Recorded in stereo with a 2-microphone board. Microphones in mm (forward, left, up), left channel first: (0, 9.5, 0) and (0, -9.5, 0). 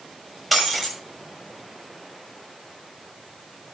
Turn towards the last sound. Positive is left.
turn(degrees=0)  # may be behind; listen again after turning